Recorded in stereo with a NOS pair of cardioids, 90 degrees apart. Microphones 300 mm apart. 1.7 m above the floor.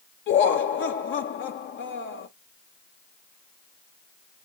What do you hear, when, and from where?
0.3 s laughter: 45° left, 0.6 m